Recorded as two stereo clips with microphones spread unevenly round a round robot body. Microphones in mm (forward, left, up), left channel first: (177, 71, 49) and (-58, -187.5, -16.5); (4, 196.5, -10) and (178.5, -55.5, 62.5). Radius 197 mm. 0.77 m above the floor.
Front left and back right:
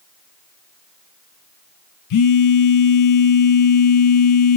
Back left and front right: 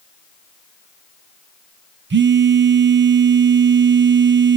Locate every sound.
2.1 s a phone buzzing: 5° left, 0.6 m